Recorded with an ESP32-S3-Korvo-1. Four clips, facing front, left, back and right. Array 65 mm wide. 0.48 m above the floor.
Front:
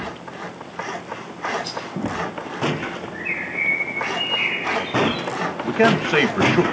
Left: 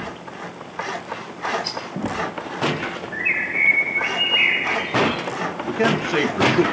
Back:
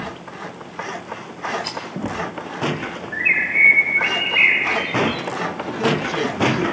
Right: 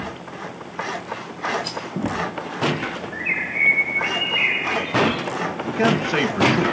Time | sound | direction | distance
1.6 | a rattle | 170° left | 2.5 m
3.1 | a bird | 155° left | 3.5 m
5.6 | a man speaking | 5° right | 2 m